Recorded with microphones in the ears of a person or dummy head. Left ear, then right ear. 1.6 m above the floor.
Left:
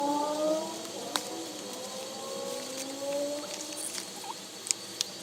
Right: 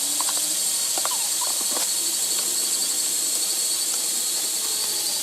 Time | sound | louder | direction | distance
0.0 | a drone | right 2 dB | 60° right (ahead or behind) | ?